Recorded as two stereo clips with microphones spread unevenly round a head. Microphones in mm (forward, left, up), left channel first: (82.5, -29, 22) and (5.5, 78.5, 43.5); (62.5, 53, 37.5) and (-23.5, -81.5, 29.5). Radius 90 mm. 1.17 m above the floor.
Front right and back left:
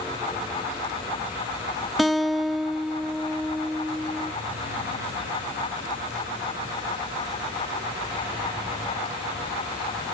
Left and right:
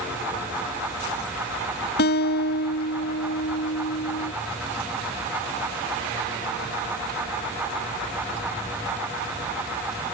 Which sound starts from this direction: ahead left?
A guitar, at 2.0 s.